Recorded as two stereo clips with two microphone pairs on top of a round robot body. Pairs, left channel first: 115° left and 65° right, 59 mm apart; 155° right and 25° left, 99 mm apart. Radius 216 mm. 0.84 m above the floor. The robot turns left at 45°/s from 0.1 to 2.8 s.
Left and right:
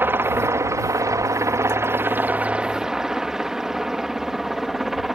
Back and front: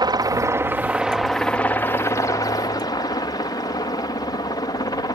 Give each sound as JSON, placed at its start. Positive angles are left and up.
{"t": 0.0, "sound": "a helicopter", "azimuth_deg": -20}